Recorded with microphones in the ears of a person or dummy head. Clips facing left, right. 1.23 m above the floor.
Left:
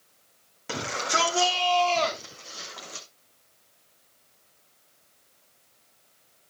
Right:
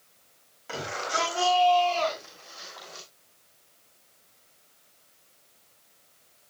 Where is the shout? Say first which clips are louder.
Left 2 dB; 55° left (ahead or behind), 4.5 m; by 3.1 s 45° left (ahead or behind), 3 m.